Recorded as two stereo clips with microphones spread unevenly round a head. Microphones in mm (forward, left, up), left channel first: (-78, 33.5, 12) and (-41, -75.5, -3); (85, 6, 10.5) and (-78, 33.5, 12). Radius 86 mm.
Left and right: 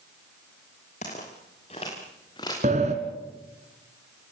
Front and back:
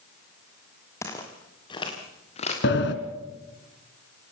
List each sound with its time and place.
1.0 s footsteps: 65° left, 4.5 m; by 2.5 s 40° left, 4.5 m
2.6 s a sliding door: 25° right, 1.9 m